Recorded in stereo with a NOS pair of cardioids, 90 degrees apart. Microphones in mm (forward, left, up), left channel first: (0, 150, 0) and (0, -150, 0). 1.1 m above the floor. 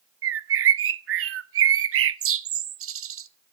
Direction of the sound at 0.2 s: 45° right.